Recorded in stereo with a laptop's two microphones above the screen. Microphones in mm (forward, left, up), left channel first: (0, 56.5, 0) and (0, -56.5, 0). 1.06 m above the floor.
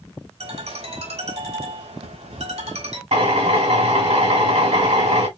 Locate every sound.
0.4 s a ringtone: 85° right, 3 m
3.1 s a drill: 75° right (ahead or behind), 2.5 m